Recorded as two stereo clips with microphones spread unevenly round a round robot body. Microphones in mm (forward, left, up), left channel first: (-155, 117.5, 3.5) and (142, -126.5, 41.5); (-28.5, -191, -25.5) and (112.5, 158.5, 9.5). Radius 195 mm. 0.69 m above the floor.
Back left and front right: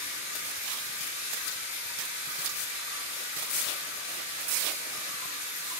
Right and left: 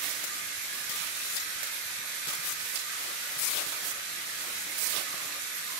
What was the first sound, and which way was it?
Running water, 90° left.